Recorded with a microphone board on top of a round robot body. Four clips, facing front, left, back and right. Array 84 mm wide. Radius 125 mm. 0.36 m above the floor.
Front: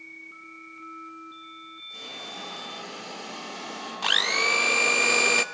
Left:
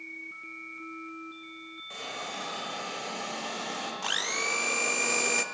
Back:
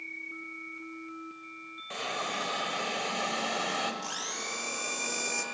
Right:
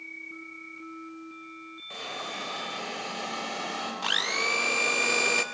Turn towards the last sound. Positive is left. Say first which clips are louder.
# right 4 dB, front 11 dB
turn(degrees=-10)